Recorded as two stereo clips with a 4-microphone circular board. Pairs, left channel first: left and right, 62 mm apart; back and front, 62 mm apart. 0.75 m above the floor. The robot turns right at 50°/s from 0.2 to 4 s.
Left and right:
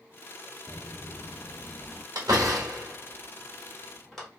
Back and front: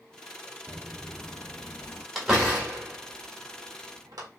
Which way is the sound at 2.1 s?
90° right.